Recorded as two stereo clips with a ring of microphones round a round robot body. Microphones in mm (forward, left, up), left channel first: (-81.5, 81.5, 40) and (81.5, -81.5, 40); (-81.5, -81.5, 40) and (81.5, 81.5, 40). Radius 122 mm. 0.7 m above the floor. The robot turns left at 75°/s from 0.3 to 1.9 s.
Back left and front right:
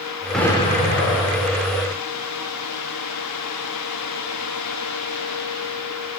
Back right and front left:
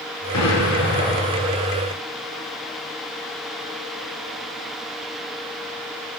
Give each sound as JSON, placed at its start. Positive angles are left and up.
{"t": 0.3, "sound": "an explosion", "azimuth_deg": -135, "distance_m": 1.8}